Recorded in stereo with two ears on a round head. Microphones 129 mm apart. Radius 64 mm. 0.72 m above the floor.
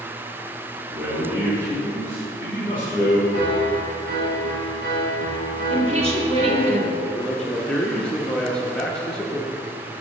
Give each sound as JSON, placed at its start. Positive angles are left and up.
{"t": 0.9, "sound": "a man speaking", "side_deg": -15, "distance_m": 2.5}
{"t": 3.3, "sound": "a piano", "side_deg": -80, "distance_m": 3.0}
{"t": 5.7, "sound": "a woman speaking", "side_deg": -45, "distance_m": 1.7}
{"t": 7.0, "sound": "a man speaking", "side_deg": 5, "distance_m": 0.8}